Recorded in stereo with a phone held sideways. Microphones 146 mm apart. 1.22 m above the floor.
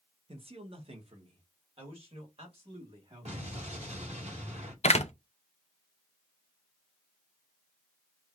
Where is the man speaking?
40° right (ahead or behind), 0.9 m.